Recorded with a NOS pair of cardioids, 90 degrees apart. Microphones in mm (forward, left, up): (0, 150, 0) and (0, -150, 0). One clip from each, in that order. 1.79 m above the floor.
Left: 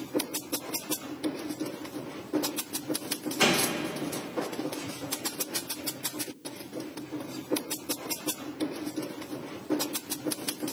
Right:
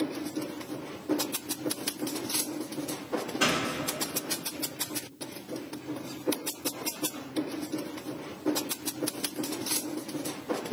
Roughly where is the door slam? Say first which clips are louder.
Left 3 dB; ahead left.